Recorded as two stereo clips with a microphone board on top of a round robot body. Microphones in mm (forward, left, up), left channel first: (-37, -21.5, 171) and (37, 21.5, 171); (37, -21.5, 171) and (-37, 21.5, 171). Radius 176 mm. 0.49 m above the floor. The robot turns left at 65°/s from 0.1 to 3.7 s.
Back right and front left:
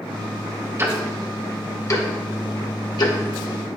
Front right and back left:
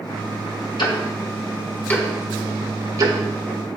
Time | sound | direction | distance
0.8 | ticking | 30° right | 2.5 m